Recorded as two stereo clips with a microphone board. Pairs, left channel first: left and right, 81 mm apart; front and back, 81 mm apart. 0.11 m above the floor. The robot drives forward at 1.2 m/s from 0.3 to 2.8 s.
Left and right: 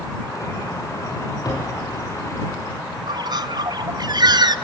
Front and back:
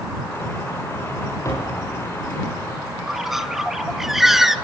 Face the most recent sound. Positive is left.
turn(degrees=-95)